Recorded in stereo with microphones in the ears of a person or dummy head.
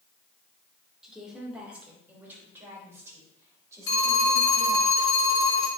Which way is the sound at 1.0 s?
Centre (ahead or behind).